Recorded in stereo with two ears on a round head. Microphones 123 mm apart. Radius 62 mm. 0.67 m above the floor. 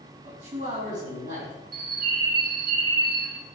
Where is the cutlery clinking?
I don't hear cutlery clinking.